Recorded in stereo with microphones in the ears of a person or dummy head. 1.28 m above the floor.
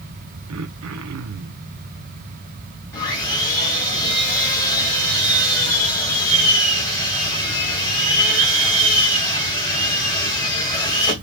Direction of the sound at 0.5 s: 75° right (ahead or behind).